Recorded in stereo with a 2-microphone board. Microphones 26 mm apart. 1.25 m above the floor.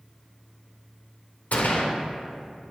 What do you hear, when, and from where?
1.5 s a gunshot: 70° left (ahead or behind), 0.7 m